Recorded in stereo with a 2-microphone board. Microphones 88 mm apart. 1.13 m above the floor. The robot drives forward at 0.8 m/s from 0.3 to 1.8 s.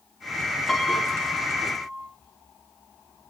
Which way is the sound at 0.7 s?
5° left (ahead or behind).